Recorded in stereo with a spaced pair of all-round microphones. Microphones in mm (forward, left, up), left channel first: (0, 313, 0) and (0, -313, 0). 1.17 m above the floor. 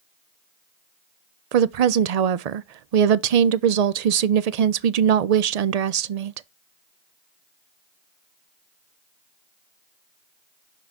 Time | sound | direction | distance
1.5 | a woman speaking | 75° right (ahead or behind) | 0.6 m